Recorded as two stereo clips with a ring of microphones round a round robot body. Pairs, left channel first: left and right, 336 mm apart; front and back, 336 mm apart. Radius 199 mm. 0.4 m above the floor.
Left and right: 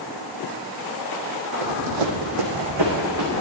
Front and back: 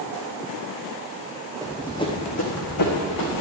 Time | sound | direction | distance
1.6 | running footsteps | 100° right | 1.3 m